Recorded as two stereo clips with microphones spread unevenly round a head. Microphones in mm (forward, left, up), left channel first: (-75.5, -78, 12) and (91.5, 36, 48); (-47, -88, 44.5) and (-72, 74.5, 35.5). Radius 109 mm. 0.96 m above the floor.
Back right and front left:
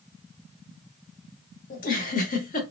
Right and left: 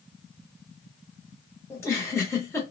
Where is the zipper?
I don't hear a zipper.